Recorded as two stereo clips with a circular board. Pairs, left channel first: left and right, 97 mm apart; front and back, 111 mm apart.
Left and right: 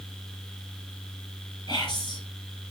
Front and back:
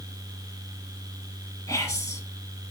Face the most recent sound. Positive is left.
turn(degrees=65)